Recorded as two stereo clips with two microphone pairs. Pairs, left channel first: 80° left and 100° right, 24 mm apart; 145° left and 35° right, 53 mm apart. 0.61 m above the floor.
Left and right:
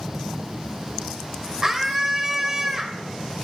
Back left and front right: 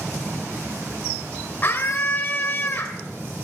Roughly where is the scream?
Behind.